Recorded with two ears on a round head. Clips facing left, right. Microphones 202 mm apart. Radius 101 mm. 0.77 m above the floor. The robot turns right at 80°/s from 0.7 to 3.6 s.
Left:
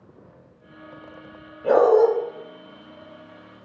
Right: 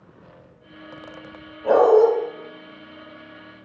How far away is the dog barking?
About 1.0 m.